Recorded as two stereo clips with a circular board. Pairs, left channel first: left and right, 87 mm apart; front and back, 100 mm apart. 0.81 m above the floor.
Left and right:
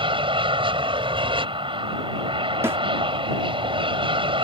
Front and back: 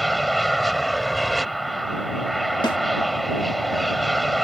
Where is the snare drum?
30° right.